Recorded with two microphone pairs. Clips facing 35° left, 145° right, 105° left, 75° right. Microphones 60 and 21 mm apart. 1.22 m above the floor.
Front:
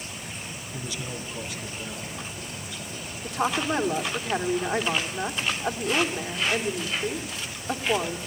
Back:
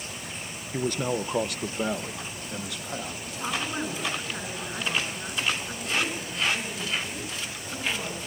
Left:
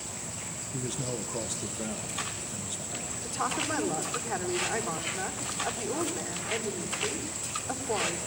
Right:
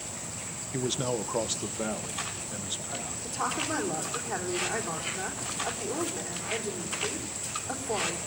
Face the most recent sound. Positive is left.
turn(degrees=15)